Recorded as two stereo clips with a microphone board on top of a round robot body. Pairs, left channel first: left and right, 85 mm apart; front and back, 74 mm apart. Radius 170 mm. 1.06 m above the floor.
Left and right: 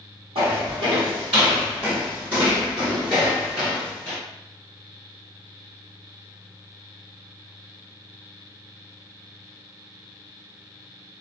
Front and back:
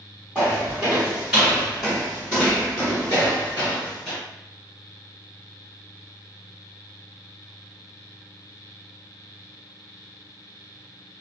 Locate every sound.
0.3 s footsteps: 110° right, 1.6 m; by 4.2 s 25° left, 1.2 m